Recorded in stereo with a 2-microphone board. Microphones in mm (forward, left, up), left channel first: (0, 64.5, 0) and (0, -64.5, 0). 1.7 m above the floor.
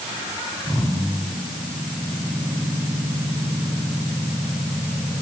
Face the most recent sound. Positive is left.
No sound to turn to.